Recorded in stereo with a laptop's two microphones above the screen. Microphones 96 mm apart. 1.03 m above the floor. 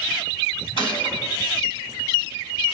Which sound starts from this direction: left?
A gunshot, at 0.8 s.